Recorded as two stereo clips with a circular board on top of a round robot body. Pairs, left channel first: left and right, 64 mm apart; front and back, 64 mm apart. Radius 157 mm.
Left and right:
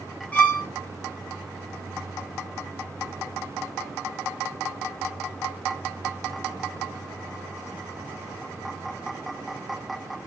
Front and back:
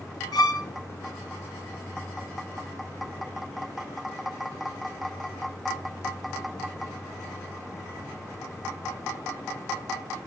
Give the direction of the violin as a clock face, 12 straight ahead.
11 o'clock.